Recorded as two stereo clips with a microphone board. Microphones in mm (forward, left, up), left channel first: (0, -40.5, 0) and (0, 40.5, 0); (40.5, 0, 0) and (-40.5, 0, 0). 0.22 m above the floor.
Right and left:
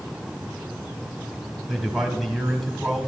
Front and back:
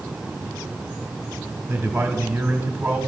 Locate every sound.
1.7 s a man speaking: 175° left, 1.4 m